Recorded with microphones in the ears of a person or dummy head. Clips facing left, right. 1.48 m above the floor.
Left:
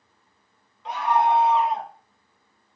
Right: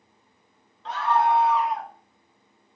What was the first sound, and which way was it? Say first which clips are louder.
A scream: left 1 dB; 15° left (ahead or behind).